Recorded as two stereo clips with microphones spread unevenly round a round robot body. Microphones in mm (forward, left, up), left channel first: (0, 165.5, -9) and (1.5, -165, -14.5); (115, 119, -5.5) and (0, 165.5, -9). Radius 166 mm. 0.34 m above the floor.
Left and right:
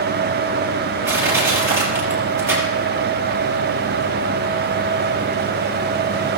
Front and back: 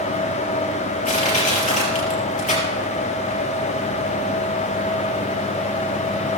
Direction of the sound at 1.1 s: 5° right.